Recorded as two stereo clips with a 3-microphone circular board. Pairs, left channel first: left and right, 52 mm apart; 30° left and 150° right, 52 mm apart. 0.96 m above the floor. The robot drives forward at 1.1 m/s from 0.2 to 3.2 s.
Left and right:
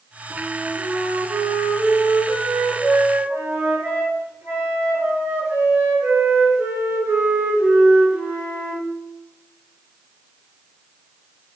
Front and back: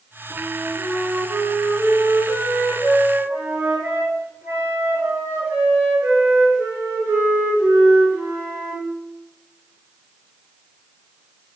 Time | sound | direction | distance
0.3 | a flute | 80° right | 3 m